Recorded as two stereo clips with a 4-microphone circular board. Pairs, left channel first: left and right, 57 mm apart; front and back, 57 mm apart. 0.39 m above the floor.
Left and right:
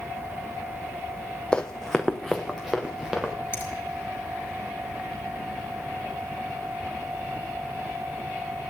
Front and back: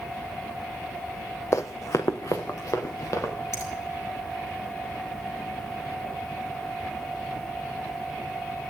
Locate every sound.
1.5 s running footsteps: 20° left, 0.8 m; by 3.3 s 10° right, 3 m
3.5 s a finger snap: 35° left, 4.5 m